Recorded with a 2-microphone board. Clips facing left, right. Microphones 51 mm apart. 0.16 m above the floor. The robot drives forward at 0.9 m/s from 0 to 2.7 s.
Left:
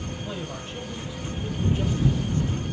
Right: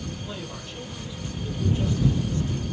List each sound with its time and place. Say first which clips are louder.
0.2 s a man speaking: left 2 dB; 15° left (ahead or behind), 5 m; by 2.6 s 30° left (ahead or behind), 3.5 m